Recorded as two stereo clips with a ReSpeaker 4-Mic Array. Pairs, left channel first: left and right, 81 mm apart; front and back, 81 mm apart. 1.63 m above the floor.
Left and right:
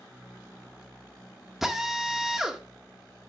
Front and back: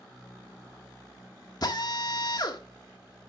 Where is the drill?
5° right, 1.6 m.